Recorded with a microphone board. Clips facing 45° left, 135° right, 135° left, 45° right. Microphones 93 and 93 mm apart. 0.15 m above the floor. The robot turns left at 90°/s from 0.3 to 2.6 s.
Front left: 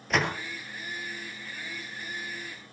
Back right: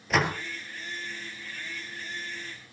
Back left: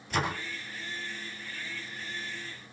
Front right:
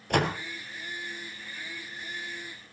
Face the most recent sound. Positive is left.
turn(degrees=105)